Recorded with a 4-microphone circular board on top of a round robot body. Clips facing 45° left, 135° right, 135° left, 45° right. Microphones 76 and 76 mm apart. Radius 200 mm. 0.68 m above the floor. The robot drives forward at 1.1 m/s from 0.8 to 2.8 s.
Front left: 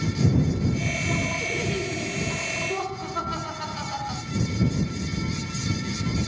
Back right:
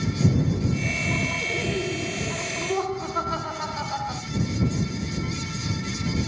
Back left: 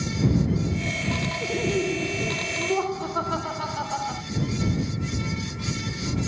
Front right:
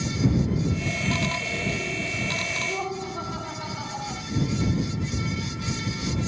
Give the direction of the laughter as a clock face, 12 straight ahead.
7 o'clock.